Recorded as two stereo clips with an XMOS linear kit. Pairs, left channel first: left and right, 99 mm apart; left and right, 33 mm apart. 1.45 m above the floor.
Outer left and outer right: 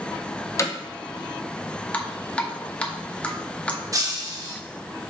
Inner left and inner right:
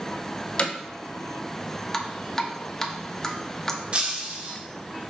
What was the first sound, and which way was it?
Hammering, 35° left (ahead or behind).